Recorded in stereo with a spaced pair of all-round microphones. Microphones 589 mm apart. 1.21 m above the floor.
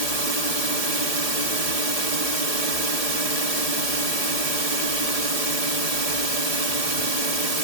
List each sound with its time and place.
0.0 s a drone: 75° right (ahead or behind)